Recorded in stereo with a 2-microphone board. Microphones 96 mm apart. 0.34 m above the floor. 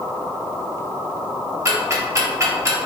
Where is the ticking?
30° right (ahead or behind), 1.1 m.